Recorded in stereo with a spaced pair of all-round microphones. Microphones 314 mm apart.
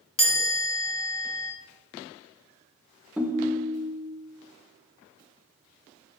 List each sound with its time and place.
0.2 s a chime: 70° left (ahead or behind), 3 m
3.2 s a ringtone: 5° right (ahead or behind), 0.6 m